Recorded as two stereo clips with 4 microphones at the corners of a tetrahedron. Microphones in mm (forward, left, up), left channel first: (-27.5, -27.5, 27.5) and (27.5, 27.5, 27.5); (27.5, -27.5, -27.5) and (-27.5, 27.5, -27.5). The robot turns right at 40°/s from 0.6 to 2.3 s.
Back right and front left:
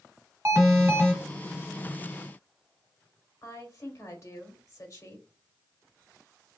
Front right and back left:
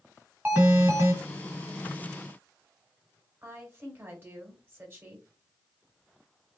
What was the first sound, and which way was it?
An alarm, 80° left.